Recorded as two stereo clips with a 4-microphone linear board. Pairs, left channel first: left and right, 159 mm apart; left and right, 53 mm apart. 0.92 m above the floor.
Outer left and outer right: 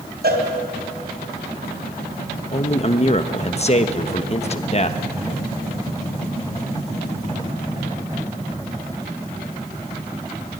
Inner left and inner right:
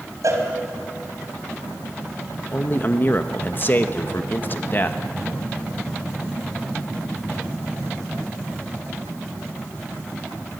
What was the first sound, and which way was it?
A cowbell, 75° right (ahead or behind).